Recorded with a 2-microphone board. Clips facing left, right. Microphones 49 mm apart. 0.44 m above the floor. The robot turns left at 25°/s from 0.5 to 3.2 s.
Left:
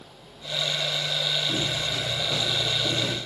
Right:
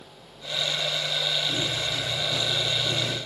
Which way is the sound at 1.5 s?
70° left (ahead or behind).